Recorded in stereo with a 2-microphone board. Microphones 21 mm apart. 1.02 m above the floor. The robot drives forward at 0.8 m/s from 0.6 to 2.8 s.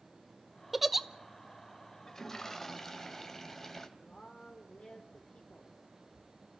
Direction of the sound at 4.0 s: 75° left (ahead or behind).